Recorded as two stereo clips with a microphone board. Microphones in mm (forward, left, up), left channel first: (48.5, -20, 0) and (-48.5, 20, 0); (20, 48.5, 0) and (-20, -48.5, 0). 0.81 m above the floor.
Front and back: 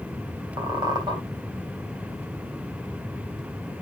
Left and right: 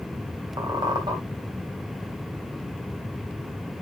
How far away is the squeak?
About 3.5 m.